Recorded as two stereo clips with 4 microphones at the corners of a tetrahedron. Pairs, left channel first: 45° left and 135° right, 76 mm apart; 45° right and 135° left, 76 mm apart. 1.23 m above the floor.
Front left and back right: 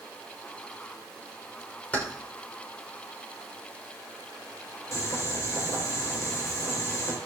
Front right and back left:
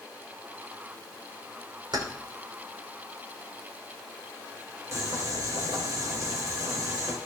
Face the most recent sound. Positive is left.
turn(degrees=90)